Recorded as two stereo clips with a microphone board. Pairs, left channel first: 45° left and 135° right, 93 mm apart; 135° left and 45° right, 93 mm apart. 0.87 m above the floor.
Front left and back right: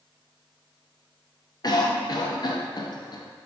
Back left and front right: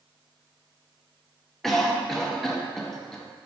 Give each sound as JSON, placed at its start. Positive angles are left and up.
{"t": 1.6, "sound": "a cough", "azimuth_deg": 50, "distance_m": 0.5}